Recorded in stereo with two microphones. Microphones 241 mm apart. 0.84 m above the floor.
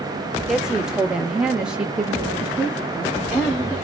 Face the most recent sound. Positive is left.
turn(degrees=-5)  # may be behind; listen again after turning